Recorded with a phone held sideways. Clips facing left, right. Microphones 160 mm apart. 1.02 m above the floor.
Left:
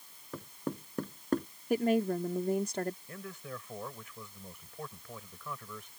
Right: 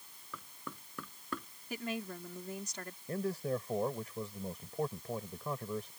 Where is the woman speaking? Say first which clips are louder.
Left 12 dB; 60° left (ahead or behind).